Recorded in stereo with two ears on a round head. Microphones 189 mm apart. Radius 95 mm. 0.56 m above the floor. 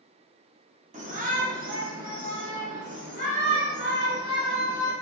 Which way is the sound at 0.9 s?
35° right (ahead or behind).